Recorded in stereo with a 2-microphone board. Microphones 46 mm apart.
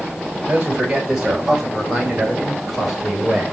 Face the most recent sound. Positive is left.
turn(degrees=0)  # may be behind; listen again after turning